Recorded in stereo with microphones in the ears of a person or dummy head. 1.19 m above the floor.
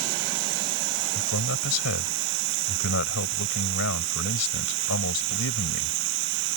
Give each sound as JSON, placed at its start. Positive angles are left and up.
{"t": 0.0, "sound": "running water", "side_deg": -70}
{"t": 1.1, "sound": "a man speaking", "side_deg": 75}